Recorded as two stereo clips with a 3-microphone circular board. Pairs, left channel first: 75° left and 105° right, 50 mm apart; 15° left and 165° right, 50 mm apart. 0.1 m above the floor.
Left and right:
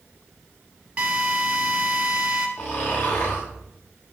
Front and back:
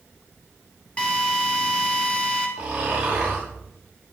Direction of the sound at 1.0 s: 40° right.